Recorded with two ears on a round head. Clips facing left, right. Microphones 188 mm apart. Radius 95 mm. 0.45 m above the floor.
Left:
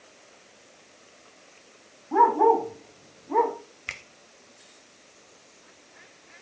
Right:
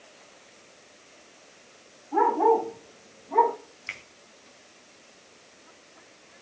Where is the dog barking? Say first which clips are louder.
Left 1 dB; 75° left (ahead or behind), 7.5 m; by 3.5 s 60° left (ahead or behind), 6.5 m.